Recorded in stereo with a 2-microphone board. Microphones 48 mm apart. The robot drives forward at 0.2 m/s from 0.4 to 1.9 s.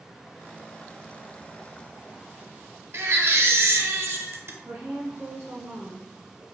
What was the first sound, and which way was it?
A baby crying, 65° right (ahead or behind).